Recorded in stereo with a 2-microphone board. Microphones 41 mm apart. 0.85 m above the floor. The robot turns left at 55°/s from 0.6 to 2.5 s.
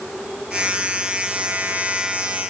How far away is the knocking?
I don't hear knocking.